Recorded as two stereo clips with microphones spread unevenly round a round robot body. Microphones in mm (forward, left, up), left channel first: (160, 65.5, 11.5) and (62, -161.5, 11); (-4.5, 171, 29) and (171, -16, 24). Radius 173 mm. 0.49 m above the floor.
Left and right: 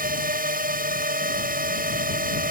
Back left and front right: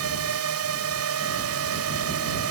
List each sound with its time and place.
0.0 s a drone: 65° right